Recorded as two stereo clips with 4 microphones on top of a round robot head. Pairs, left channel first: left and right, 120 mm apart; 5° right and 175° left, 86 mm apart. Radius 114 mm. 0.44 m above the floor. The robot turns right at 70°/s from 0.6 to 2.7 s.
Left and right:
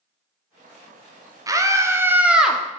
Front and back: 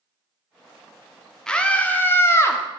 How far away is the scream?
About 1.4 m.